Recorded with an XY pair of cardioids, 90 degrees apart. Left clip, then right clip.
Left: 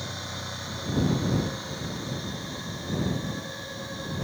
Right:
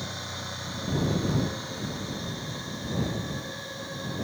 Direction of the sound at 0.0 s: Straight ahead.